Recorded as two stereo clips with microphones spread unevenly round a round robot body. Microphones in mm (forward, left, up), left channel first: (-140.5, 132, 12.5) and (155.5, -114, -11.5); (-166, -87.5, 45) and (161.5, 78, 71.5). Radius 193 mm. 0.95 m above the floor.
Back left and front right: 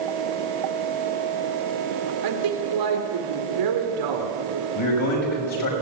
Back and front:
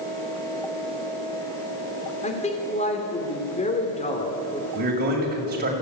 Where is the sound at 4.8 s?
95° left, 6.5 m.